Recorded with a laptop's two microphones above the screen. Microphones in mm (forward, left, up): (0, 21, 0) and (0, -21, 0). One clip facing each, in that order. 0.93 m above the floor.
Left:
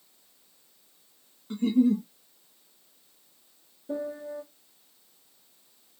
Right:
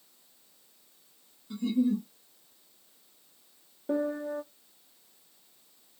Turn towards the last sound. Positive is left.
turn(degrees=-55)  # may be behind; listen again after turning